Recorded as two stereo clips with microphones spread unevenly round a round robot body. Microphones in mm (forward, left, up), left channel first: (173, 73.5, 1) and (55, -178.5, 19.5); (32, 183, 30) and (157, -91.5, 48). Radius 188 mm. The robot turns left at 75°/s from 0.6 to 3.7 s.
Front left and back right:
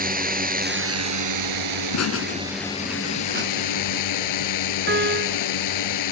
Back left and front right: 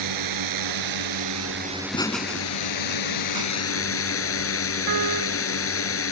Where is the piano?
65° right.